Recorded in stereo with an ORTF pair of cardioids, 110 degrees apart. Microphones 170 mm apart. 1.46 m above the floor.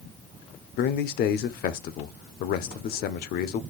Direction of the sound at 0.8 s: 70° left.